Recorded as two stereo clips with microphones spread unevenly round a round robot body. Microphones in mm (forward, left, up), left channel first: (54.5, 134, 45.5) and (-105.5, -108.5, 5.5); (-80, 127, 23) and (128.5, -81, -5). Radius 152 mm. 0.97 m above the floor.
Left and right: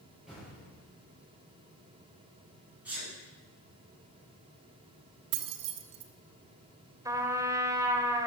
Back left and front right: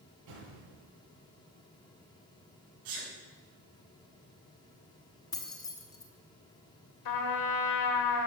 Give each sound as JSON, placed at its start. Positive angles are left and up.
{"t": 0.3, "sound": "an explosion", "azimuth_deg": -35, "distance_m": 7.5}
{"t": 2.9, "sound": "a sneeze", "azimuth_deg": -40, "distance_m": 7.0}
{"t": 5.3, "sound": "keys jangling", "azimuth_deg": -145, "distance_m": 1.3}
{"t": 7.0, "sound": "a trumpet", "azimuth_deg": 155, "distance_m": 1.8}